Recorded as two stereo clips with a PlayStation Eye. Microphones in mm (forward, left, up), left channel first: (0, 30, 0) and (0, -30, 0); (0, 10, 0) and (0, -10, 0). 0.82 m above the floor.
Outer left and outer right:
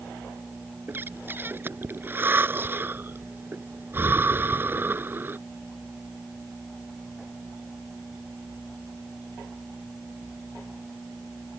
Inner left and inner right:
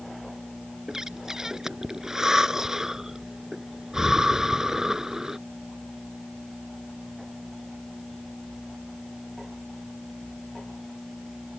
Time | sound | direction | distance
0.9 | breathing | 35° right (ahead or behind) | ?